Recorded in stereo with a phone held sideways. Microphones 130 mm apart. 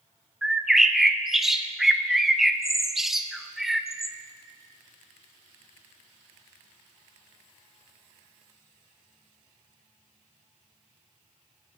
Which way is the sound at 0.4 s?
5° right (ahead or behind).